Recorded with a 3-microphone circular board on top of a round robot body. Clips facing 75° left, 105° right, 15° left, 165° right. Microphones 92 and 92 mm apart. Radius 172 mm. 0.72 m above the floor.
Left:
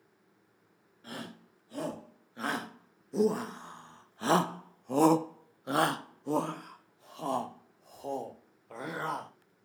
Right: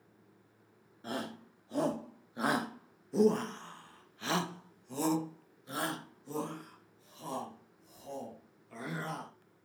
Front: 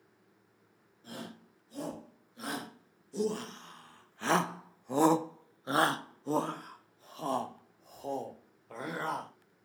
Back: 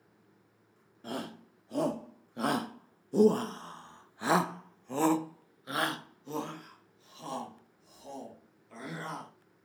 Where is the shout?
165° right, 1.8 m; by 9.3 s 50° left, 3 m.